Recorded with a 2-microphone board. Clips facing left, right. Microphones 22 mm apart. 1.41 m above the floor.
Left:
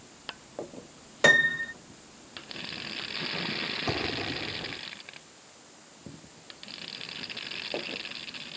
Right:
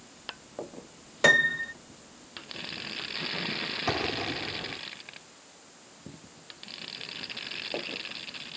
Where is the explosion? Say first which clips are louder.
Right 4 dB; 25° right (ahead or behind).